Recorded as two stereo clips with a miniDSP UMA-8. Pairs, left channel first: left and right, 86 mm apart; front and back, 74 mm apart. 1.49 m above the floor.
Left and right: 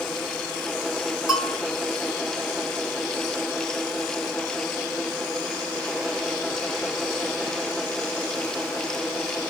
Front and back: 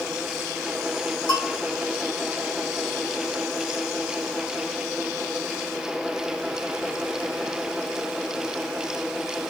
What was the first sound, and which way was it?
A bell, straight ahead.